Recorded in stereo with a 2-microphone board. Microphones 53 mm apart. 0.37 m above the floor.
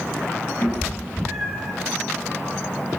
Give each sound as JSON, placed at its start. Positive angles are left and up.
{"t": 0.6, "sound": "a cat meowing", "side_deg": 55, "distance_m": 1.2}